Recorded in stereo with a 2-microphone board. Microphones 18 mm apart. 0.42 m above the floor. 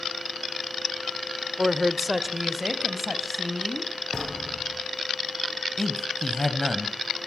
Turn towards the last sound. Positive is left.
turn(degrees=25)  # may be behind; listen again after turning